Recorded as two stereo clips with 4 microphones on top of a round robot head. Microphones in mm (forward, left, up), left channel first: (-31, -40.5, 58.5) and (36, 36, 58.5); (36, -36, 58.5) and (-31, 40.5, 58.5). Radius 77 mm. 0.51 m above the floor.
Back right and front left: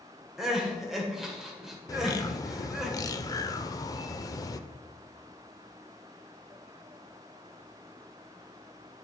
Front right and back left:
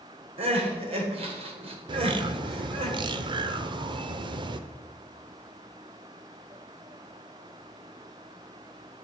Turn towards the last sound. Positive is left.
turn(degrees=175)